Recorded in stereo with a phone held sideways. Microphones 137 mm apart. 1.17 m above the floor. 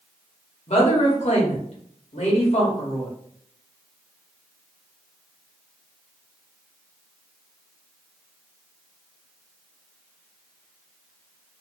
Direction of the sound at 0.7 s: 55° left (ahead or behind).